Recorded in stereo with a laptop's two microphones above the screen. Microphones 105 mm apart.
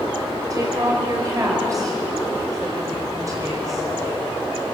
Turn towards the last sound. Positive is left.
turn(degrees=-35)  # may be behind; listen again after turning